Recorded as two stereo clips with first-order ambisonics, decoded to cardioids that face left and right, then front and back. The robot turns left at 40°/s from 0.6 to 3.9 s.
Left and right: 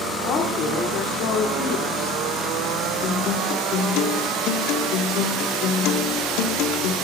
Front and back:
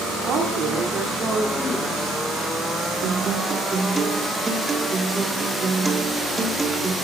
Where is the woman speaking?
135° left, 2.5 m; by 2.2 s 75° left, 2.5 m.